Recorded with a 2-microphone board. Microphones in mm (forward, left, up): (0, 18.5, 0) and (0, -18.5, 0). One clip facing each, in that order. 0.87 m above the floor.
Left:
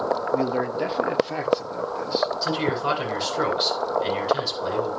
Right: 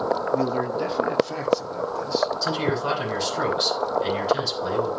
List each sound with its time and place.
0.3 s a man speaking: 15° left (ahead or behind), 1.3 m; by 2.3 s 25° left (ahead or behind), 2.5 m
2.4 s a man speaking: 10° left (ahead or behind), 7 m